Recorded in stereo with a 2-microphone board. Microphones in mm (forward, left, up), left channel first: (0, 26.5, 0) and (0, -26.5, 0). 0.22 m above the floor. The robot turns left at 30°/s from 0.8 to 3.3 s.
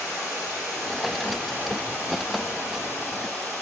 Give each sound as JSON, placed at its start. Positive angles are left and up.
{"t": 0.0, "sound": "running water", "azimuth_deg": 110, "distance_m": 2.5}